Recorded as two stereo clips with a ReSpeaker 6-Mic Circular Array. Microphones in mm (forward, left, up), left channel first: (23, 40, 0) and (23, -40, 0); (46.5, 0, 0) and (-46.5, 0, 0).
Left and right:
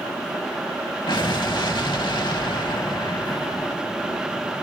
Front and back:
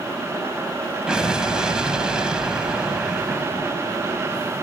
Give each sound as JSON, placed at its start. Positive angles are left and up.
{"t": 1.1, "sound": "an explosion", "azimuth_deg": 100, "distance_m": 0.8}